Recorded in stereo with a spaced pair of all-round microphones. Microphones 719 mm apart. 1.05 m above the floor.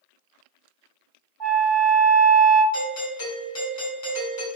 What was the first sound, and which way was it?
A flute, 35° right (ahead or behind).